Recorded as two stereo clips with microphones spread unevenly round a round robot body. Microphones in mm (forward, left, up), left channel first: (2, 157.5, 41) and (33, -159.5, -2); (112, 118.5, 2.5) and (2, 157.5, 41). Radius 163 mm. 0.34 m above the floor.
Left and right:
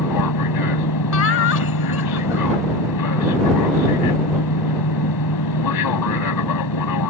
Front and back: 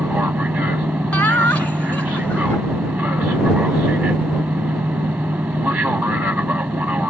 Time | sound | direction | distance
0.0 | an aircraft | 85° left | ?
1.1 | laughter | 45° left | ?